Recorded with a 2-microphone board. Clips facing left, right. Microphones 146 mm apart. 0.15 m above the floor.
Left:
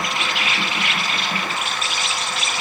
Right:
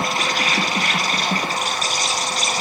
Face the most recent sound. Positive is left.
turn(degrees=-40)  # may be behind; listen again after turning